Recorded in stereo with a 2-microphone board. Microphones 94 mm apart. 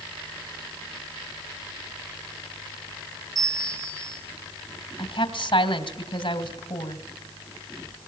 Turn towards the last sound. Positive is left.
turn(degrees=65)  # may be behind; listen again after turning